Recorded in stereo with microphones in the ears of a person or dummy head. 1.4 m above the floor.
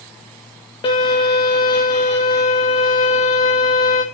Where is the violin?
30° left (ahead or behind), 1.8 m.